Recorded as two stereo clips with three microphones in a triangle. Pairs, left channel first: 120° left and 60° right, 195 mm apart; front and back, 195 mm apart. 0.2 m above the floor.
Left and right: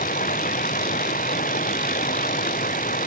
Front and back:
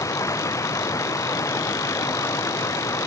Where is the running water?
75° left.